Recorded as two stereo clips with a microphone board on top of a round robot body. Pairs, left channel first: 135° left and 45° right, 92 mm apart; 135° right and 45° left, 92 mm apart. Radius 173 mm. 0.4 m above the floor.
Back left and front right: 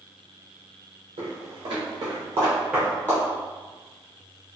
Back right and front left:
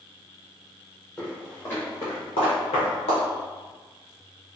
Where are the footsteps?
55° right, 1.1 m; by 3.2 s 160° right, 0.7 m.